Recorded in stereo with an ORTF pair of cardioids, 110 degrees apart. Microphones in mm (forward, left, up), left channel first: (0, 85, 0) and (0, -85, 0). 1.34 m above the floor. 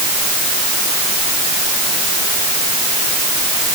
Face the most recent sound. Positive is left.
No sound to turn to.